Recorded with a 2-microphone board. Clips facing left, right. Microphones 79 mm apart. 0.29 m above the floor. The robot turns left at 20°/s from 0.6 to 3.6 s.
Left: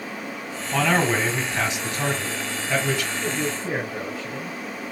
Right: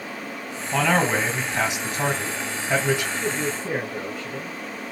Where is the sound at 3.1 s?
20° left (ahead or behind), 2 m; by 4.6 s 25° left (ahead or behind), 2 m.